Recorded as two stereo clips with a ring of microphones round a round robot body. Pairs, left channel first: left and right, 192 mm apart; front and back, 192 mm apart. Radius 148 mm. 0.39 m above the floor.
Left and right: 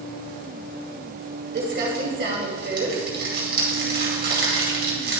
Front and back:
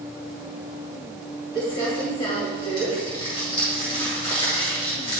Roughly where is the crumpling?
Ahead right.